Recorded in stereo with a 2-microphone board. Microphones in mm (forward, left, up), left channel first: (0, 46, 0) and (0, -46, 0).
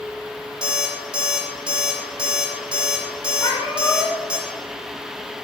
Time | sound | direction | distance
0.6 | an alarm clock | 55° right (ahead or behind) | 0.7 m
3.4 | a cat meowing | 55° left (ahead or behind) | 0.8 m